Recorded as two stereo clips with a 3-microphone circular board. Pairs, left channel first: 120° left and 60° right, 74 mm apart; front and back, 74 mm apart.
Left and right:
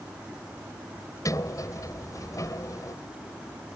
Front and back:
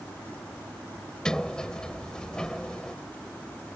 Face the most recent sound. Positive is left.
turn(degrees=80)